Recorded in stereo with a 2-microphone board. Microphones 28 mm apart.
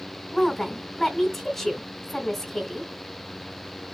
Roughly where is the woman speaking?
Centre.